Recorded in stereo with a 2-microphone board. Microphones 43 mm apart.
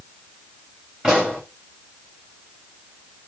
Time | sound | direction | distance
1.0 | a pop | 20° right (ahead or behind) | 6.5 m